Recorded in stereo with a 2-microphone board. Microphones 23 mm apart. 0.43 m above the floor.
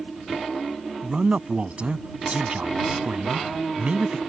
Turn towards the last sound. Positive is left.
turn(degrees=-65)  # may be behind; listen again after turning